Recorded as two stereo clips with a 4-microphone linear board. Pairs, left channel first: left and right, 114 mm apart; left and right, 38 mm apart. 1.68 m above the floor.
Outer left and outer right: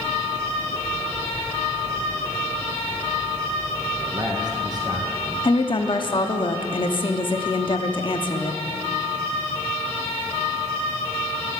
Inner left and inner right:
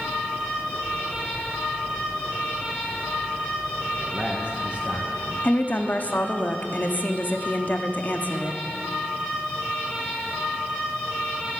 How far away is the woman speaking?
About 0.8 m.